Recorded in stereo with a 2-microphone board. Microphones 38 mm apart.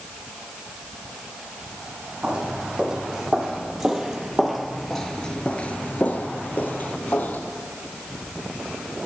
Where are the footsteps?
25° right (ahead or behind), 4 m; by 7.4 s 45° left (ahead or behind), 2.5 m.